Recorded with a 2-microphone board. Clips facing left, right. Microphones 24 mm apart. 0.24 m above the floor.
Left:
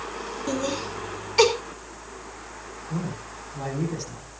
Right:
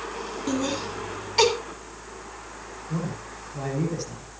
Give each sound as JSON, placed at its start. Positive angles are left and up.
{"t": 0.5, "sound": "laughter", "side_deg": -15, "distance_m": 3.0}
{"t": 2.9, "sound": "a man speaking", "side_deg": -25, "distance_m": 6.5}